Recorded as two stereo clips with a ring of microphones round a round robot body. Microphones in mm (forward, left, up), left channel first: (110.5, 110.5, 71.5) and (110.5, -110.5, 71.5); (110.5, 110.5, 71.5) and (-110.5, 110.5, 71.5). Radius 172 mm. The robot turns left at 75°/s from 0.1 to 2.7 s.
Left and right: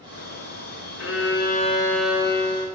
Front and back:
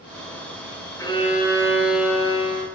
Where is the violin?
80° left, 6 m; by 2.7 s 50° right, 6 m.